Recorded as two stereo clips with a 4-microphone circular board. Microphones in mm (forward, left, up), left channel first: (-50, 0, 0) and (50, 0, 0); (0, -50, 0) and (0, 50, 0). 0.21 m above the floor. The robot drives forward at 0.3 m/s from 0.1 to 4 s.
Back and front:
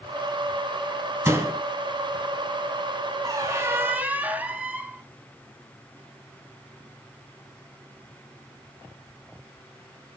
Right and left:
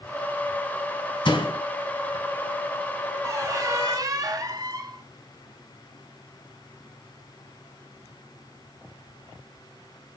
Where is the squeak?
40° left, 0.7 m; by 5.0 s 65° left, 0.6 m.